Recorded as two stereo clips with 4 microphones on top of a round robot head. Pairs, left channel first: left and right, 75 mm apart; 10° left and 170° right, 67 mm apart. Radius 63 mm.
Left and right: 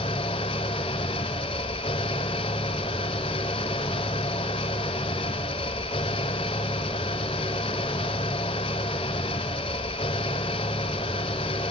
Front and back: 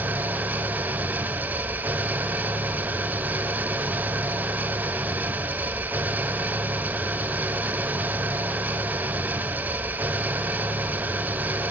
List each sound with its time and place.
0.0 s an engine running: 125° left, 0.9 m